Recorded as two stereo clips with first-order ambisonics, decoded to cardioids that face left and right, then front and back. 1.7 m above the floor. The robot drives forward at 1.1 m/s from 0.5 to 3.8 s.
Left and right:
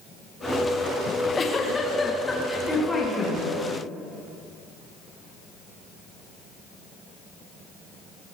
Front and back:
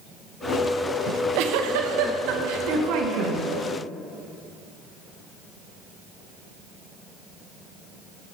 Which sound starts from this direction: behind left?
A giggle, at 1.1 s.